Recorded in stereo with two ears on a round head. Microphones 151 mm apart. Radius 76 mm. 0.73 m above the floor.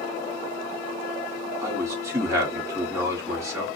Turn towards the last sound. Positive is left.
turn(degrees=-20)  # may be behind; listen again after turning